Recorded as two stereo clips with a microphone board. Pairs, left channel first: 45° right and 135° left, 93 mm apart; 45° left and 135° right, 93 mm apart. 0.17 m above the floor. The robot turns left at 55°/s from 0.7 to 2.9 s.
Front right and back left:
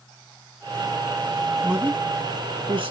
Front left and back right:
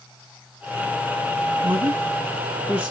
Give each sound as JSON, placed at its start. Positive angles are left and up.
{"t": 1.6, "sound": "a man speaking", "azimuth_deg": -150, "distance_m": 3.5}